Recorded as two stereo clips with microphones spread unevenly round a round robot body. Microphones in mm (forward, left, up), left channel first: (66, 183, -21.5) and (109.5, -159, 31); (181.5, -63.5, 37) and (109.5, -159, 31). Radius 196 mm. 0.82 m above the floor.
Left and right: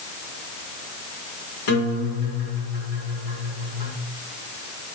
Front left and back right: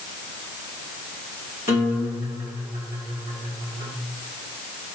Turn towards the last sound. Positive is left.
turn(degrees=80)